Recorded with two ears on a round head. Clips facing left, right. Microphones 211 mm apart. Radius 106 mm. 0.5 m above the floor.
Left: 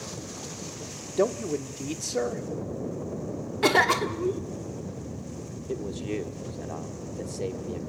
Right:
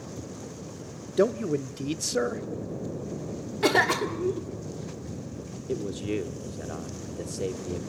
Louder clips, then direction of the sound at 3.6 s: Even; centre (ahead or behind).